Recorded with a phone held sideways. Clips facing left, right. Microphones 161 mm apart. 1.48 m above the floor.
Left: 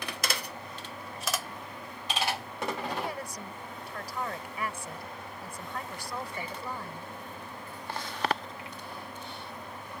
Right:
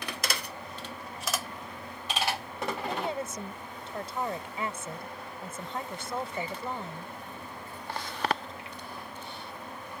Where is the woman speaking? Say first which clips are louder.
Right 3 dB; 25° right (ahead or behind).